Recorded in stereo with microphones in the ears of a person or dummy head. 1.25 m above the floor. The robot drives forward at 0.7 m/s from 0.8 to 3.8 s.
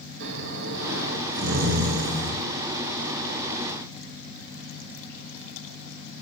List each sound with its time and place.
0.2 s snoring: 65° right (ahead or behind), 2.0 m; by 2.4 s 45° right (ahead or behind), 2.5 m